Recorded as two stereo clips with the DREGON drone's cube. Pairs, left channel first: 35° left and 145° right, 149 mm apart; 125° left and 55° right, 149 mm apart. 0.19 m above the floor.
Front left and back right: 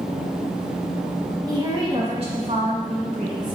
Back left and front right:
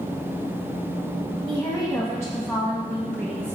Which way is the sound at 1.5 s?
170° left.